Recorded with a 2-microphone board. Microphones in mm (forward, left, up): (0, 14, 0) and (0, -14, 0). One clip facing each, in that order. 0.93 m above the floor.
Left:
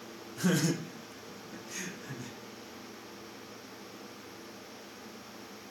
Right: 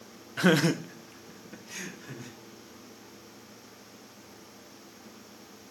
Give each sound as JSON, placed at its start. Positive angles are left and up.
{"t": 0.4, "sound": "laughter", "side_deg": -60, "distance_m": 0.5}